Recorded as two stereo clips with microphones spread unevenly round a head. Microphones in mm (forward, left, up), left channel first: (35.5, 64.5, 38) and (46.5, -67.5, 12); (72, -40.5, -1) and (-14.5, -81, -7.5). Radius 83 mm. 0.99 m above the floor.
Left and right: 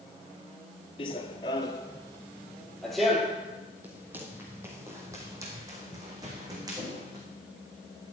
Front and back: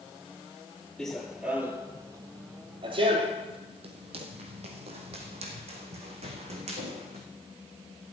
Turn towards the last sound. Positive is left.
turn(degrees=-155)